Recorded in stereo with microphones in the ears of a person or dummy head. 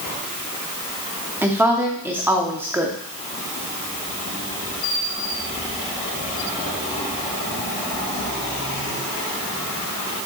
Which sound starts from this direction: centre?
A woman speaking, at 1.4 s.